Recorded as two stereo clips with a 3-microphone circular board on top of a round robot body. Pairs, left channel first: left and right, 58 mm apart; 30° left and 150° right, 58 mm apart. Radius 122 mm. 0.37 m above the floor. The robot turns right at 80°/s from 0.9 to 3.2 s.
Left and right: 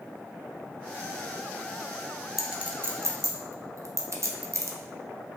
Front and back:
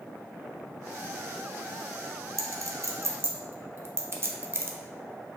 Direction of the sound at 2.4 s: 175° right.